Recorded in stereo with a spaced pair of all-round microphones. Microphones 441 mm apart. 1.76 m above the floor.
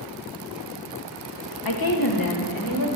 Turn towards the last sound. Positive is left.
turn(degrees=45)  # may be behind; listen again after turning